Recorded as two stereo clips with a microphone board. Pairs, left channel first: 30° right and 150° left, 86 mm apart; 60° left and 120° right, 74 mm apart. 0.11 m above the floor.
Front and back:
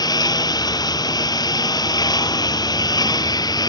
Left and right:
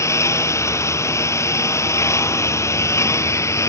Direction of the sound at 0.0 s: 10° left.